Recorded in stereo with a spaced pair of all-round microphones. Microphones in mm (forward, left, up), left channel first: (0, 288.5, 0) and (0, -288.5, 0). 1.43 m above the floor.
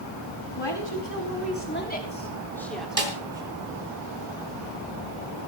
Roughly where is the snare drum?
Right.